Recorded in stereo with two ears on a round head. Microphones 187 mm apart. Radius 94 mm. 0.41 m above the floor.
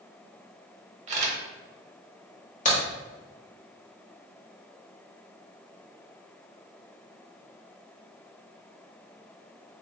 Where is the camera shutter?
35° right (ahead or behind), 0.8 m.